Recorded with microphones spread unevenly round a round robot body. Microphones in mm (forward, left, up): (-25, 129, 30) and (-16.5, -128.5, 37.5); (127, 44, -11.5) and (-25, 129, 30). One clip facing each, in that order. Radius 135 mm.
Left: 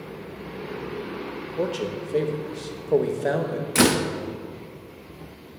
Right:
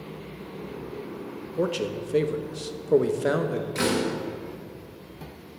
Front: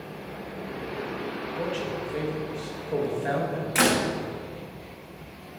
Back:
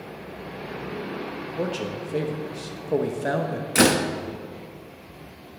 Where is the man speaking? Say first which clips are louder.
Even, back 3 dB; 160° right, 0.8 m.